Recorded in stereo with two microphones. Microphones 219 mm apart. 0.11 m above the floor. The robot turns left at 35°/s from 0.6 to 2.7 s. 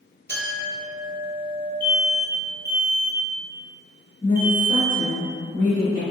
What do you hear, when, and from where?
0.3 s a clink: 115° right, 1.7 m; by 1.7 s 150° right, 1.7 m
1.8 s an alarm: 25° right (ahead or behind), 0.9 m; by 5.2 s 10° right (ahead or behind), 0.9 m
4.2 s a woman speaking: 25° left (ahead or behind), 1.8 m